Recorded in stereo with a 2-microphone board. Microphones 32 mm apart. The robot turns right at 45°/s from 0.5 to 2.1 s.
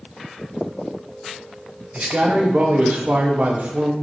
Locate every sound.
1.9 s a man speaking: 45° right (ahead or behind), 0.7 m; by 3.9 s 50° right (ahead or behind), 0.7 m